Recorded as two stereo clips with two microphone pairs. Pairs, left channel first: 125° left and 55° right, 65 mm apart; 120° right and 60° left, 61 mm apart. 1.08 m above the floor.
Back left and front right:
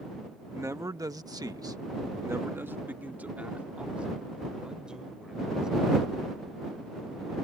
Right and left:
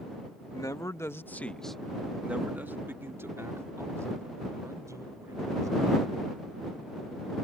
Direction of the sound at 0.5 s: 100° right.